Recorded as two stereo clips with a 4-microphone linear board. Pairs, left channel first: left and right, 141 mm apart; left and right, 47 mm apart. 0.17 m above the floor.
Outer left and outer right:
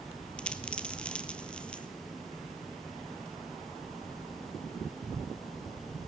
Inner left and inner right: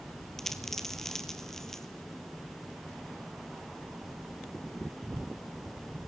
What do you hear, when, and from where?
0.4 s a dropped coin: 10° left (ahead or behind), 1.6 m